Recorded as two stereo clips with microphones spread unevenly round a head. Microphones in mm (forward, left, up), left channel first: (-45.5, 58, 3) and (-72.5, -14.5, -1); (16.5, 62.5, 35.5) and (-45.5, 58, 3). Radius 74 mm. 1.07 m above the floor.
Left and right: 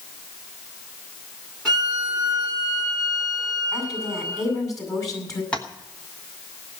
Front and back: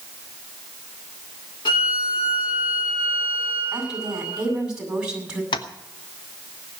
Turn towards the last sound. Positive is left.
turn(degrees=-15)